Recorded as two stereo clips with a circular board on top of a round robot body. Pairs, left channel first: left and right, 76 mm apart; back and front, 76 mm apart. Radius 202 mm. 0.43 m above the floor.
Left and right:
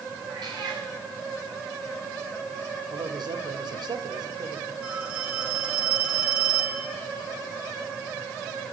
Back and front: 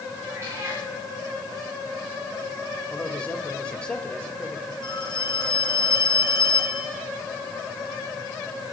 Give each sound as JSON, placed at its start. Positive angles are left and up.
{"t": 0.3, "sound": "a cat meowing", "azimuth_deg": -60, "distance_m": 8.0}
{"t": 2.9, "sound": "a man speaking", "azimuth_deg": -105, "distance_m": 3.0}
{"t": 4.8, "sound": "a phone ringing", "azimuth_deg": -160, "distance_m": 6.0}